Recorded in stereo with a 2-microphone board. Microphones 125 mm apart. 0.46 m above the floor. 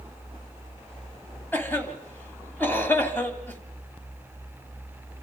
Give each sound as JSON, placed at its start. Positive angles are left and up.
{"t": 1.5, "sound": "a cough", "side_deg": 15, "distance_m": 3.0}